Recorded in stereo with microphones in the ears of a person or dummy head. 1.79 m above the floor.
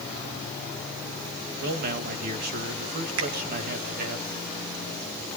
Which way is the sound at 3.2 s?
70° right (ahead or behind).